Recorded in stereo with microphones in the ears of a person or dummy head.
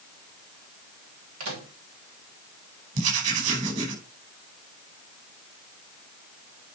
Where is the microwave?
85° right, 2.5 m.